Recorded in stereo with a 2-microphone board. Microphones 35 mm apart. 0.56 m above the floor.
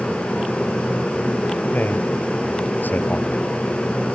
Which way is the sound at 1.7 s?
65° left (ahead or behind).